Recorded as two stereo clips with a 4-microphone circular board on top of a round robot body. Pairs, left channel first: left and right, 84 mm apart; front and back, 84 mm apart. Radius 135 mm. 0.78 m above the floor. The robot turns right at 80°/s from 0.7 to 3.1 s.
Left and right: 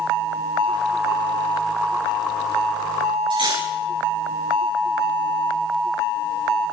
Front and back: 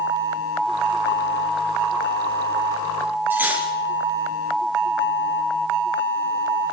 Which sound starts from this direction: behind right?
Cutlery clinking, at 3.3 s.